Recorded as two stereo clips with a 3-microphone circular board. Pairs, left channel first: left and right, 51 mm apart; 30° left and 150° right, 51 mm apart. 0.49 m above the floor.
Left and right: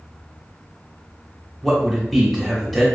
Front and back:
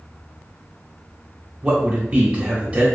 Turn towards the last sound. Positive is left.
turn(degrees=170)